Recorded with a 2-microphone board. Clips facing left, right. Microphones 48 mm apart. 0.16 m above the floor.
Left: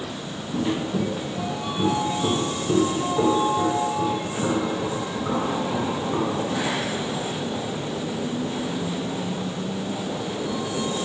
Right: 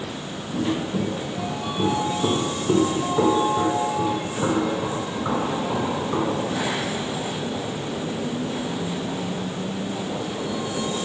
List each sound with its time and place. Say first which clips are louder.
0.5 s footsteps: even; 5° left (ahead or behind), 1.7 m; by 6.5 s 85° right, 3 m